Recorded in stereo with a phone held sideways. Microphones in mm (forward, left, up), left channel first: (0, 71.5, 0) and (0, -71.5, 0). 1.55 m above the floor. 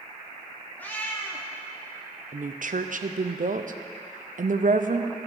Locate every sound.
0.8 s a cat meowing: 10° left (ahead or behind), 1.0 m
2.3 s a woman speaking: 65° right (ahead or behind), 0.5 m